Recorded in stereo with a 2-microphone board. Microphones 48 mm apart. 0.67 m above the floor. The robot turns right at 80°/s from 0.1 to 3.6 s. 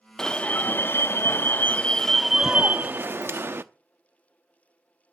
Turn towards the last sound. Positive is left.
turn(degrees=-70)